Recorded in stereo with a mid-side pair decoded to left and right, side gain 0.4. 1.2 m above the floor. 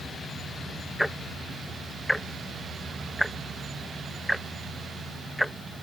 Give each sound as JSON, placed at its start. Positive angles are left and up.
{"t": 1.0, "sound": "ticking", "azimuth_deg": 0}